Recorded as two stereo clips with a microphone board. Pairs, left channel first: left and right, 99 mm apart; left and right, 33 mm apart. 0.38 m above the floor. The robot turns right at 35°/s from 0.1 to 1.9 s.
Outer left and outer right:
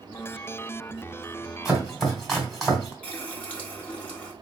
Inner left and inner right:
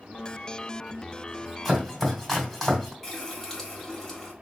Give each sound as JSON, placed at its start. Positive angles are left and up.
{"t": 1.6, "sound": "chopping", "side_deg": -5, "distance_m": 1.8}
{"t": 3.0, "sound": "a running tap", "side_deg": 15, "distance_m": 1.3}